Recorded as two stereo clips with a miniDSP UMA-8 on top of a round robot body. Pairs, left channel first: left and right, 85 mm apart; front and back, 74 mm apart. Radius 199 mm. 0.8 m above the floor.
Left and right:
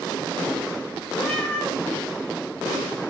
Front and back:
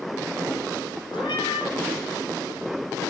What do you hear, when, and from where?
1.1 s a cat meowing: 10° left, 4.5 m